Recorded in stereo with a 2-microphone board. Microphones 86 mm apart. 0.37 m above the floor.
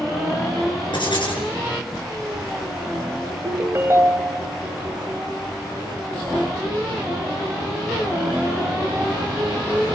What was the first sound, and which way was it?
Writing, 65° left (ahead or behind).